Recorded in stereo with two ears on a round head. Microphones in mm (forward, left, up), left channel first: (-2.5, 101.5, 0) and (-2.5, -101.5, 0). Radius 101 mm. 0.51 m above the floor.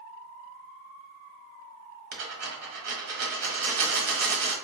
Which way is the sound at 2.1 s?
45° right (ahead or behind).